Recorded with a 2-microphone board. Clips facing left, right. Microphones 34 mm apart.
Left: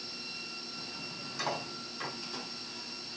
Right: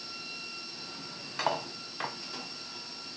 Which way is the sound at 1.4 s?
45° right (ahead or behind).